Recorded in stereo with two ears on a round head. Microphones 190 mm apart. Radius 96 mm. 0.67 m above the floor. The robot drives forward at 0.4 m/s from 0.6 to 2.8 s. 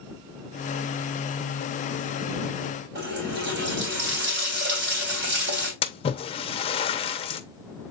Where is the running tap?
55° right (ahead or behind), 3 m.